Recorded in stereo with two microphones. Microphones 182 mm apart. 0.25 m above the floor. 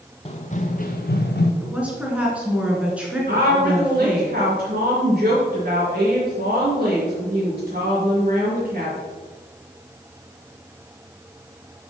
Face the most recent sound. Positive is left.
turn(degrees=-55)  # may be behind; listen again after turning